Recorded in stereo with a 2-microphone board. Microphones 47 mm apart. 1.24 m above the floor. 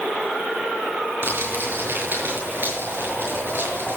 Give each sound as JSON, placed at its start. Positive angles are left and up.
{"t": 1.2, "sound": "crumpling", "side_deg": -50, "distance_m": 6.0}